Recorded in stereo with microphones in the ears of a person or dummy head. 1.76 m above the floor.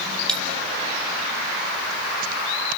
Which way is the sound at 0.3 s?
5° left (ahead or behind).